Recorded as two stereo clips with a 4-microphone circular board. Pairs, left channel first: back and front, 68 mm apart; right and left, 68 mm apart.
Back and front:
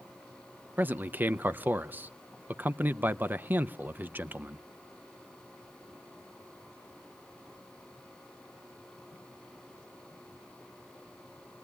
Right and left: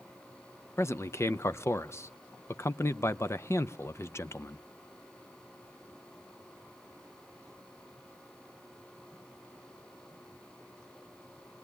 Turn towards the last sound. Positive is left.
turn(degrees=-55)